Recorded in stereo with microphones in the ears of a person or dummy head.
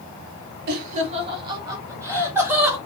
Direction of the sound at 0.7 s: 50° right (ahead or behind).